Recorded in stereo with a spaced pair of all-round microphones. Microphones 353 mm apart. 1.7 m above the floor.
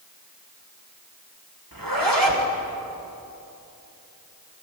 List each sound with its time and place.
1.7 s a zipper: 70° right (ahead or behind), 3 m